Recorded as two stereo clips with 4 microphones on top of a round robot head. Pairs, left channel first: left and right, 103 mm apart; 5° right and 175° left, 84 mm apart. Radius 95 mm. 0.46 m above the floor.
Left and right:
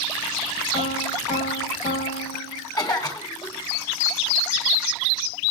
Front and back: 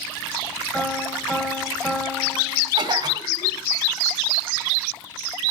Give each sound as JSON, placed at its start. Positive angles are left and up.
{"t": 0.7, "sound": "a piano", "azimuth_deg": 70, "distance_m": 3.5}
{"t": 2.8, "sound": "a cough", "azimuth_deg": 140, "distance_m": 3.5}